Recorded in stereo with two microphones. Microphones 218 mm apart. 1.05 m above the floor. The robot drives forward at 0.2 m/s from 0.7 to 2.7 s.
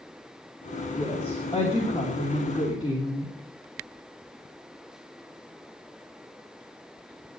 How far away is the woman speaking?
About 3 m.